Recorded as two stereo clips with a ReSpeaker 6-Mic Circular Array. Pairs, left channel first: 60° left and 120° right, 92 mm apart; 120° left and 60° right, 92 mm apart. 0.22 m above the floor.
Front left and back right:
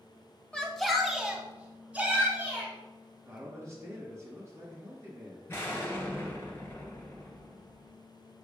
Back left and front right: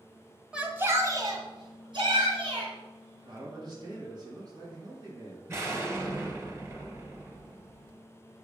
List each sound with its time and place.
0.5 s a shout: 5° left, 1.1 m; by 2.7 s 50° right, 3 m
3.2 s a man speaking: 70° right, 2 m
5.5 s an explosion: straight ahead, 1.8 m